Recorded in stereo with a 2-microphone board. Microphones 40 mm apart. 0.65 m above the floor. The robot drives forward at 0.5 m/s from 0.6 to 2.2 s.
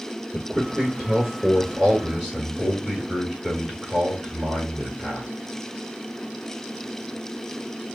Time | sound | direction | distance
0.3 | a man speaking | 10° right (ahead or behind) | 2.5 m